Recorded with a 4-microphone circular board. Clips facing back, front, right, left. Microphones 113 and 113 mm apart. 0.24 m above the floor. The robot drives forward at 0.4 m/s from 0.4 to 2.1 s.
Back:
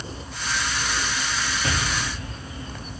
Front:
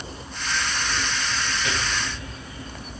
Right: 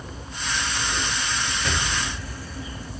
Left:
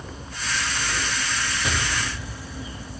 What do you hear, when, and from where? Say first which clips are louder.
1.6 s an explosion: back 1 dB, even; 165° left, 1.0 m